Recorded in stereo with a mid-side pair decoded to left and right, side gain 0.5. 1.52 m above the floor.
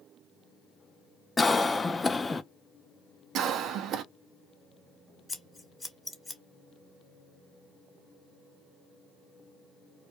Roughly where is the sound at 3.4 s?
Ahead right.